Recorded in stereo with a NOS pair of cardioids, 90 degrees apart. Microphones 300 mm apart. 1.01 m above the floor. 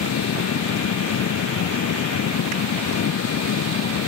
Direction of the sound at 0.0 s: 60° left.